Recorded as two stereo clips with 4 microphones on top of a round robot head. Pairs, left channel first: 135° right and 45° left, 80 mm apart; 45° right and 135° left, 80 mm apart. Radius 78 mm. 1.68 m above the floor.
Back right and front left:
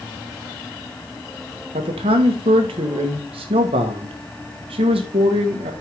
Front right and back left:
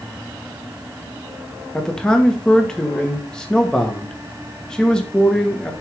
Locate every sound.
1.7 s a man speaking: 40° left, 1.5 m